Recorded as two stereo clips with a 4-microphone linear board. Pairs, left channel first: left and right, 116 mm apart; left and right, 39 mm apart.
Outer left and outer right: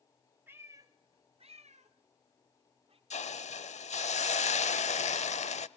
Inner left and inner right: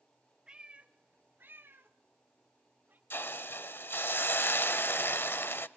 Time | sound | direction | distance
0.5 | a cat meowing | 20° right (ahead or behind) | 1.3 m
3.1 | a hiss | 80° left | 0.7 m